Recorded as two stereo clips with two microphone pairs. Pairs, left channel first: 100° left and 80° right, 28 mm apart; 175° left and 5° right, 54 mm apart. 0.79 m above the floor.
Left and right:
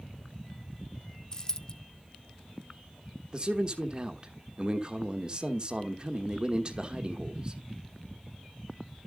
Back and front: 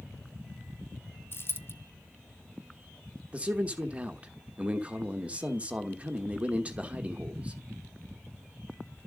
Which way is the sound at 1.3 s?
160° left.